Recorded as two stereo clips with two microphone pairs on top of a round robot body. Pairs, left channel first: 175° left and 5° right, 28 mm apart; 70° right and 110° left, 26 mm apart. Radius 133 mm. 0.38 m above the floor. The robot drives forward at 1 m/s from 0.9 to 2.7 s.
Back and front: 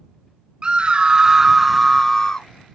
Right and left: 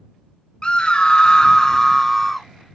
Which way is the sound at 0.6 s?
55° right.